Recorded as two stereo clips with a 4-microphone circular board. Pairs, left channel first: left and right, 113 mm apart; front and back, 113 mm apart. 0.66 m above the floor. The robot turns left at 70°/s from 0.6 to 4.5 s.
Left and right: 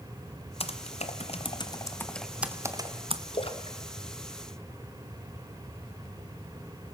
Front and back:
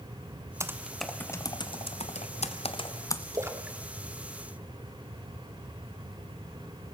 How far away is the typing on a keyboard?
About 1.4 m.